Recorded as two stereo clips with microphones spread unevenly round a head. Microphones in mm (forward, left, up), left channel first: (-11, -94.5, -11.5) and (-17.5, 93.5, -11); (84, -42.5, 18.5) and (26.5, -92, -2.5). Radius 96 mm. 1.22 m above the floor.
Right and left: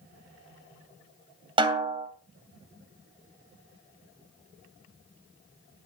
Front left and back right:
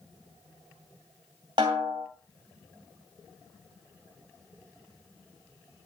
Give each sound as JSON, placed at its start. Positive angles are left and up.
{"t": 1.6, "sound": "a snare drum", "azimuth_deg": 155, "distance_m": 2.0}